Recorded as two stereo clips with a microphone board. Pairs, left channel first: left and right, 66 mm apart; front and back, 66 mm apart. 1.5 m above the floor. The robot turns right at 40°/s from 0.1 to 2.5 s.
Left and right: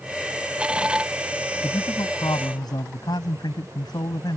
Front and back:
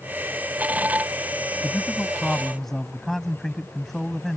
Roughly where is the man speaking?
Ahead left.